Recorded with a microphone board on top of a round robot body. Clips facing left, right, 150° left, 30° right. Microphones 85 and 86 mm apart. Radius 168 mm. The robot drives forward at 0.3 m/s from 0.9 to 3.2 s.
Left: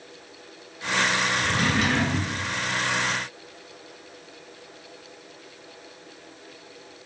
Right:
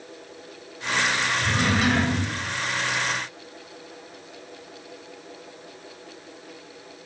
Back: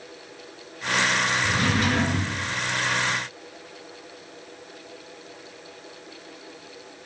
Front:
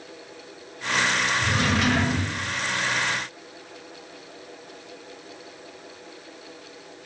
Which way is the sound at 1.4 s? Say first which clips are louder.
Right 1 dB, even; 30° right.